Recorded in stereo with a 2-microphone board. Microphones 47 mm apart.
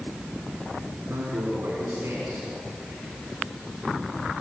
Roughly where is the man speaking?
Right.